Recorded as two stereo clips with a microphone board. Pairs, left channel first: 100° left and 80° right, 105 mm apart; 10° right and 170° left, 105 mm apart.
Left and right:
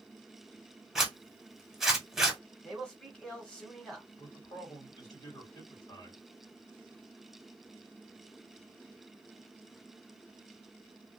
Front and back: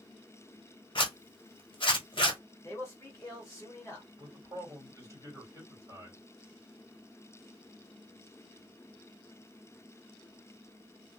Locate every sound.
0.9 s a zipper: 5° left, 1.0 m
2.6 s a man speaking: 25° left, 1.5 m
4.2 s a man speaking: 125° left, 2.5 m